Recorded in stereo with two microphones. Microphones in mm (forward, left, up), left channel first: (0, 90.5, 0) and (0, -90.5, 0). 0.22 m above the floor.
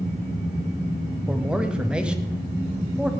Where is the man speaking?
5° right (ahead or behind), 1.0 m.